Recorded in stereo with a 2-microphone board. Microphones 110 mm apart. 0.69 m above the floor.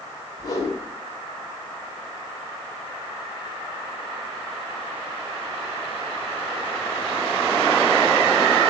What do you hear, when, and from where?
0.4 s a whoosh: 35° left (ahead or behind), 3.5 m